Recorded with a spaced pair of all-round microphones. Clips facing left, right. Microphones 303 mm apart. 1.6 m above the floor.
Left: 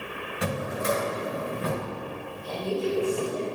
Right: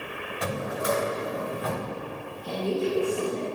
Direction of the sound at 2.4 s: 75° right (ahead or behind).